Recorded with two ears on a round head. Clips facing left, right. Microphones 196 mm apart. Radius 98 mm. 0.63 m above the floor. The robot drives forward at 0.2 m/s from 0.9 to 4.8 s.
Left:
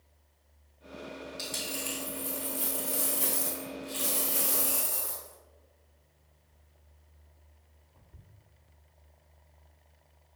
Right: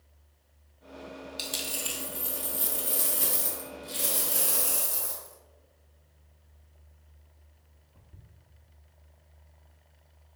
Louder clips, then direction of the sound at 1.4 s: Left 1 dB; 45° right (ahead or behind).